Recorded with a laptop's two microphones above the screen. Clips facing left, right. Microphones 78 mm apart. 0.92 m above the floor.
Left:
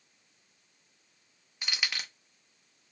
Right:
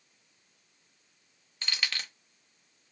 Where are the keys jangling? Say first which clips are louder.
Even; 10° left (ahead or behind), 0.5 m.